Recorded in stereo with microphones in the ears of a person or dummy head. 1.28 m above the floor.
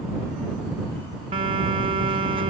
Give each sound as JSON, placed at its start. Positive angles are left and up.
{"t": 1.3, "sound": "a phone buzzing", "side_deg": -30}